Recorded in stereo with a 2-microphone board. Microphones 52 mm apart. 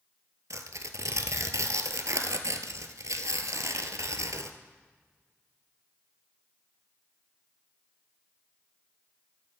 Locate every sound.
0.5 s tearing paper: 90° right, 0.8 m